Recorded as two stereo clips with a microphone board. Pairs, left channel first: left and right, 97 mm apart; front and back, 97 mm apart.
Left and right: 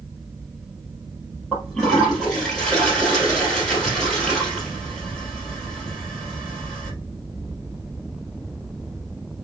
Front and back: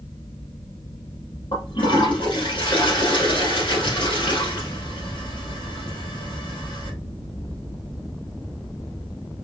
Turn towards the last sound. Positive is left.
turn(degrees=10)